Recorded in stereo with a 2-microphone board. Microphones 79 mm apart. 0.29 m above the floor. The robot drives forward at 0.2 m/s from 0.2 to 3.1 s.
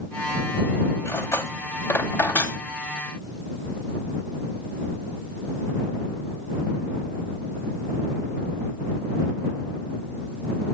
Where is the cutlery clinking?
35° left (ahead or behind), 1.0 m; by 2.6 s 25° left (ahead or behind), 1.2 m.